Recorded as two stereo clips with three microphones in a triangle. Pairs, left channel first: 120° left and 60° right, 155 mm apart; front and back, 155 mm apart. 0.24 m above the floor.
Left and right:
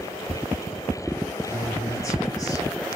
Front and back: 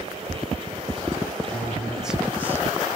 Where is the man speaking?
75° left, 1.6 m; by 3.0 s 135° left, 1.7 m.